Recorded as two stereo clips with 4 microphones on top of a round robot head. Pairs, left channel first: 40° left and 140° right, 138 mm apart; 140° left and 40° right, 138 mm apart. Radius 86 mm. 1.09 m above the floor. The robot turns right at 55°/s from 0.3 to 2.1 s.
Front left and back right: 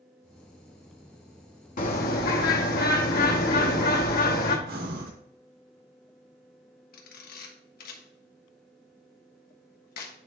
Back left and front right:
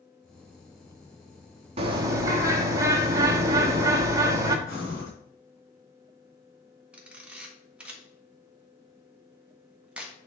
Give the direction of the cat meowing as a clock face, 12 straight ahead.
I don't hear a cat meowing.